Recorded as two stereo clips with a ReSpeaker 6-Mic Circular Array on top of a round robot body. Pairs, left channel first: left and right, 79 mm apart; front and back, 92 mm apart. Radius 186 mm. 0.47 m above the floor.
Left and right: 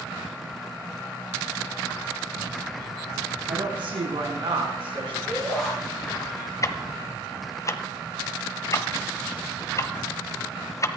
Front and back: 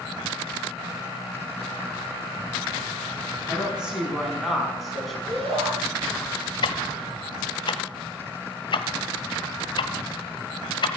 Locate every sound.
3.5 s a woman speaking: 100° right, 5.5 m; by 5.2 s 90° right, 5.5 m
5.3 s a shout: 170° left, 6 m
6.6 s ticking: 40° left, 0.8 m